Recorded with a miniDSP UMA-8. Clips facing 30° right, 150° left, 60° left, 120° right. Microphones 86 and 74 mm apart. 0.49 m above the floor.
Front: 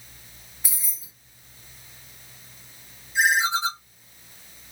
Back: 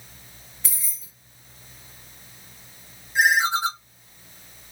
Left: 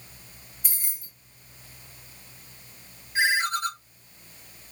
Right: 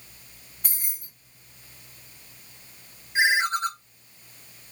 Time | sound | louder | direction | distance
0.6 | keys jangling | even, right 2 dB | 105° right | 1.7 m
3.1 | a ringtone | back 2 dB, right 2 dB | 175° left | 0.9 m